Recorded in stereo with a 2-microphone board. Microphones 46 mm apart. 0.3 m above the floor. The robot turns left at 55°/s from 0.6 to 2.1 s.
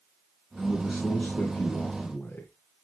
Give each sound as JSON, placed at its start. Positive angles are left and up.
{"t": 0.6, "sound": "a man speaking", "azimuth_deg": -165, "distance_m": 4.0}